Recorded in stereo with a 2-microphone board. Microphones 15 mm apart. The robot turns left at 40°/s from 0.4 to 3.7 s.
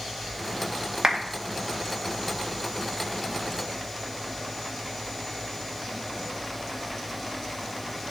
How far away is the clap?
About 1.9 m.